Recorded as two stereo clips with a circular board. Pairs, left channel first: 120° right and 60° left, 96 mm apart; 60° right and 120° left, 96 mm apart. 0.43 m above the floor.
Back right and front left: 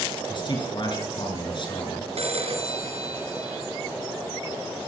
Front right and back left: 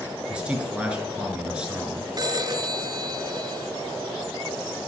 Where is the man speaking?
160° right, 6.5 m.